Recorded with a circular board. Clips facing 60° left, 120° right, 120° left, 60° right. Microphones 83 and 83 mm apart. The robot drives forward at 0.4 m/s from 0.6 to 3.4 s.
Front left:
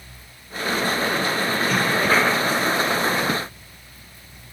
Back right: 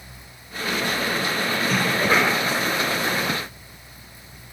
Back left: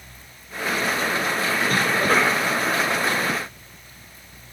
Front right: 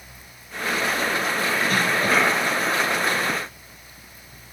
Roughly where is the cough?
Behind left.